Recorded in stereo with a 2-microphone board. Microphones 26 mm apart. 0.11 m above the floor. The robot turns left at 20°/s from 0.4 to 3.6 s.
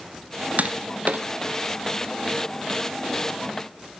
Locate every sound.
0.6 s tapping: 70° right (ahead or behind), 0.9 m; by 1.2 s 75° right (ahead or behind), 0.9 m